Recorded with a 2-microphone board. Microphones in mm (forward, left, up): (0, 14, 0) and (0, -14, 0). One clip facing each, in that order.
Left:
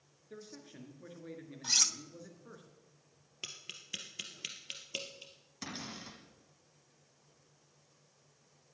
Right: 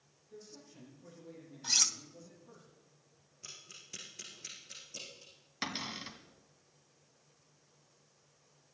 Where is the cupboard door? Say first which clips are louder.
Right 5 dB; 45° right (ahead or behind), 1.6 m.